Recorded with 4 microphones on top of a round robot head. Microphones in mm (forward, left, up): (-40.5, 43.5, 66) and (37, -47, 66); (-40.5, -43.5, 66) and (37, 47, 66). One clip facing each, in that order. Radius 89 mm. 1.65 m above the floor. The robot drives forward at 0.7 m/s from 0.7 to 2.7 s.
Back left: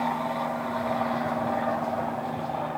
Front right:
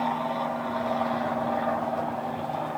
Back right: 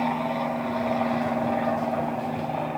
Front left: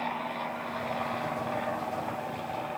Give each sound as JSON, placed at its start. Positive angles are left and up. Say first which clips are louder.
{"t": 0.0, "sound": "an aircraft", "louder": "even, back right 8 dB", "azimuth_deg": -135}